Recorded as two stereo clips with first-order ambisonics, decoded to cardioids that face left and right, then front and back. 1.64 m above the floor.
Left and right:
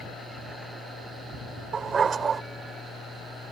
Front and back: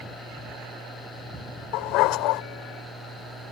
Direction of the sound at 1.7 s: 20° right.